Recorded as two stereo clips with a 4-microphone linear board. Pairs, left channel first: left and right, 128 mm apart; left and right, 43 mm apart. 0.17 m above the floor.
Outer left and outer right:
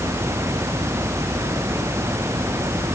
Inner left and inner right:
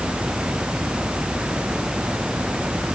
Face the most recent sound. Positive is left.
No sound to turn to.